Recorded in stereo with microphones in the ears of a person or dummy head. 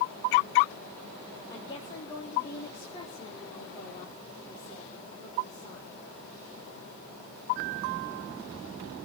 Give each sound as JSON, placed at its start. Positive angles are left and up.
{"t": 1.5, "sound": "a woman speaking", "side_deg": 20, "distance_m": 3.5}